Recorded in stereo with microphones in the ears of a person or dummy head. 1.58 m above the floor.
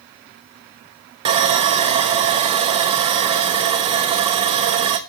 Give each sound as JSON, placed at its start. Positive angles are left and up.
{"t": 1.2, "sound": "sawing", "side_deg": -25, "distance_m": 1.0}